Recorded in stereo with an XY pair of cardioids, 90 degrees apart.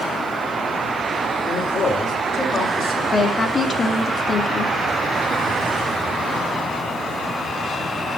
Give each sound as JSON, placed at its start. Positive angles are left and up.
{"t": 1.4, "sound": "a man speaking", "azimuth_deg": 60, "distance_m": 3.5}
{"t": 3.1, "sound": "a woman speaking", "azimuth_deg": 45, "distance_m": 2.5}